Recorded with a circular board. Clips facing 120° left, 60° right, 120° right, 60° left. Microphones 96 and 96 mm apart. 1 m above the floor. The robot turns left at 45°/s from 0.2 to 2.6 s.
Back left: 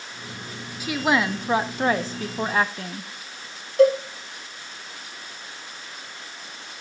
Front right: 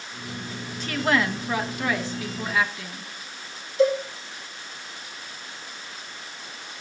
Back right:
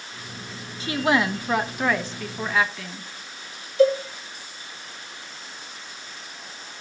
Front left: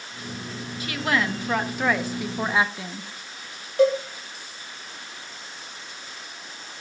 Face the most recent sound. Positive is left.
turn(degrees=90)